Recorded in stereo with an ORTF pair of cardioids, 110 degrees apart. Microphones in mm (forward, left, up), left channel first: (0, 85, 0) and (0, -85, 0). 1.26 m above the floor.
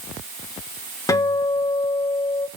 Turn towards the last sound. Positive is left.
turn(degrees=20)